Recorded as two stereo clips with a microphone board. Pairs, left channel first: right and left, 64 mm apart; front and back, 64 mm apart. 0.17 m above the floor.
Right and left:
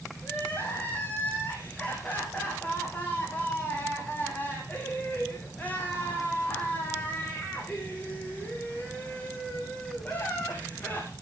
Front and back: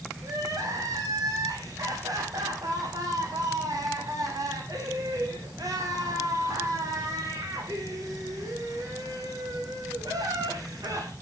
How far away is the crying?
About 5.5 m.